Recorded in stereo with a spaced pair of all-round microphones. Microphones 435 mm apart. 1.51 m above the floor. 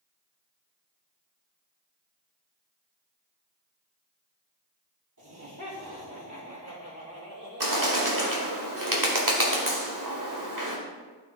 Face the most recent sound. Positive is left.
turn(degrees=-45)  # may be behind; listen again after turning